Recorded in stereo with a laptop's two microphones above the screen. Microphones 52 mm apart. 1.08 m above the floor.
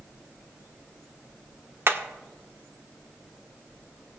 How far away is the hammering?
About 1.0 m.